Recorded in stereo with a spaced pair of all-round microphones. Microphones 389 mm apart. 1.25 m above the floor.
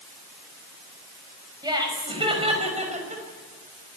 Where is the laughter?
10° right (ahead or behind), 6.5 m; by 3.2 s 20° right (ahead or behind), 6 m.